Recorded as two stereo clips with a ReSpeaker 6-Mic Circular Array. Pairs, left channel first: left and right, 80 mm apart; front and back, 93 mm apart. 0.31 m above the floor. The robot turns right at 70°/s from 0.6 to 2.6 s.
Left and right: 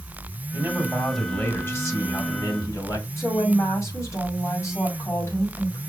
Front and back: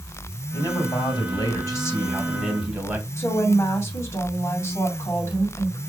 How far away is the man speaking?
About 2.5 m.